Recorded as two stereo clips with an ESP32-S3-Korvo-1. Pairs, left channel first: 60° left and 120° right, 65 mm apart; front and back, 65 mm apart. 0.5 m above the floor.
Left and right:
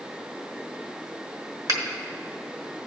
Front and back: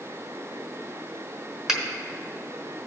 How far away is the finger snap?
About 1.4 m.